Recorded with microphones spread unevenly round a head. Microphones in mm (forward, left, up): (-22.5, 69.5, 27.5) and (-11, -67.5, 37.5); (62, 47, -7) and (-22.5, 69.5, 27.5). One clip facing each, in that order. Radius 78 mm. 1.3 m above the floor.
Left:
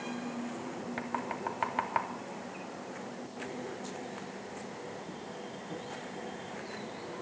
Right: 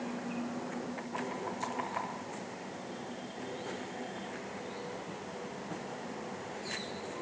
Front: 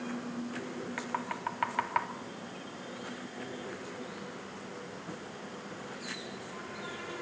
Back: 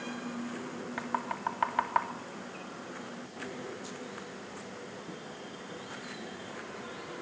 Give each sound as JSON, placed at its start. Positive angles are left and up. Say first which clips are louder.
{"t": 1.0, "sound": "knocking", "louder": "left 2 dB, back 4 dB", "azimuth_deg": 105, "distance_m": 3.0}